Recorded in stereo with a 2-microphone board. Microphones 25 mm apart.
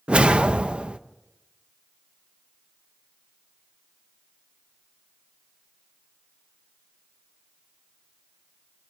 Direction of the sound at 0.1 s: 50° right (ahead or behind).